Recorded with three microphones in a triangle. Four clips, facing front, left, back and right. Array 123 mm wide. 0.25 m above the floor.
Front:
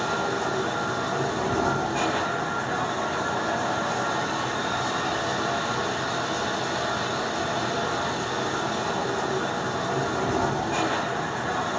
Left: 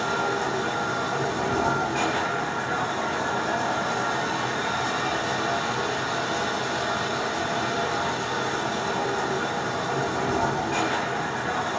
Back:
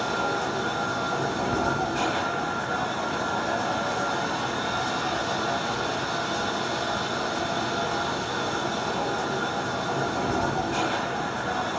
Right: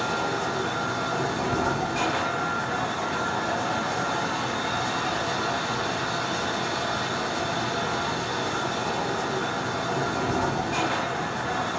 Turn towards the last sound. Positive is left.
turn(degrees=50)